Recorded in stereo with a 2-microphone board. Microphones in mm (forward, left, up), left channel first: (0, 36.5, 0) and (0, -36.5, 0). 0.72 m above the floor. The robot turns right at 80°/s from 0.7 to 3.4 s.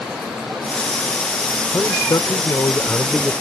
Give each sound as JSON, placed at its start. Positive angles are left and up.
{"t": 1.7, "sound": "a man speaking", "azimuth_deg": 50}